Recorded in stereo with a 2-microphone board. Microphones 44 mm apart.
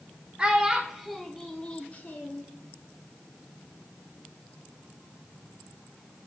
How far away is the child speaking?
About 0.9 m.